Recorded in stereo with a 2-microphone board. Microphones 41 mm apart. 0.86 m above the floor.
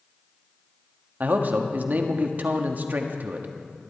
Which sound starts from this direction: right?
A man speaking, at 1.2 s.